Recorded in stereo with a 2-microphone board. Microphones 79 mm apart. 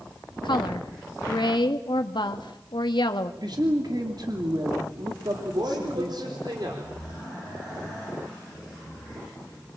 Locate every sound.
0.4 s a woman speaking: 80° left, 1.7 m
3.4 s a man speaking: 65° right (ahead or behind), 2.5 m
5.3 s a woman speaking: 75° right (ahead or behind), 4.5 m